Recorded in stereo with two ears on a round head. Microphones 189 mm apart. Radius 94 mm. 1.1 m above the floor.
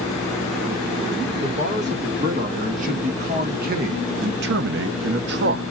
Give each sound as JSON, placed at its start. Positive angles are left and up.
{"t": 1.4, "sound": "a man speaking", "side_deg": -35, "distance_m": 2.0}